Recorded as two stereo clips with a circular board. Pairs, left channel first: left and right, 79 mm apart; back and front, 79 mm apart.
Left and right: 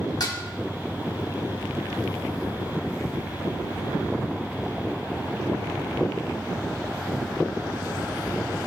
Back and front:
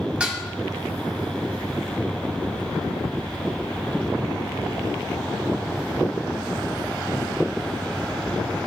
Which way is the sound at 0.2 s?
75° left.